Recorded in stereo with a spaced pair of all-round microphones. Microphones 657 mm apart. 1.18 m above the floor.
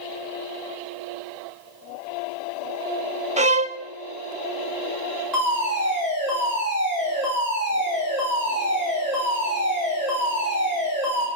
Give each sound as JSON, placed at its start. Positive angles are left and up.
{"t": 3.4, "sound": "a violin", "side_deg": -10, "distance_m": 0.8}
{"t": 5.3, "sound": "a fire alarm", "side_deg": 80, "distance_m": 7.0}